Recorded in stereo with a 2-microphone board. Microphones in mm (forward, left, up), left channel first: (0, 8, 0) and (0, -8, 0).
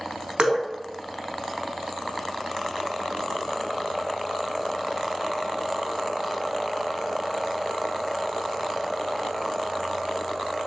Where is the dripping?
55° right (ahead or behind), 0.6 m.